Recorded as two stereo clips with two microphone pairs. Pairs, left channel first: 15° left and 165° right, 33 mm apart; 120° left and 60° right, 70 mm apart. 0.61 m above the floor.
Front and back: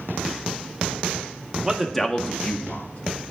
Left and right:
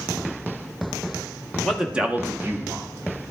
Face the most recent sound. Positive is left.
turn(degrees=-10)